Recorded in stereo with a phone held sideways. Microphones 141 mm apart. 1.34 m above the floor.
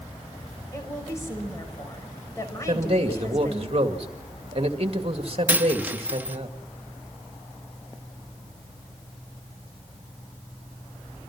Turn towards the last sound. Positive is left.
turn(degrees=-15)  # may be behind; listen again after turning